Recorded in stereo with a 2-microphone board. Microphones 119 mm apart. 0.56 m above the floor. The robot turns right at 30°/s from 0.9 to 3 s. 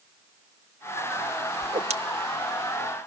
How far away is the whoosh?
About 0.9 m.